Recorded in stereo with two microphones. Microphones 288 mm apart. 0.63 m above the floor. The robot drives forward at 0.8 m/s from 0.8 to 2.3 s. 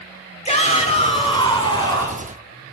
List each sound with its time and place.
0.5 s a shout: 25° left (ahead or behind), 1.6 m; by 2.3 s 15° left (ahead or behind), 2.5 m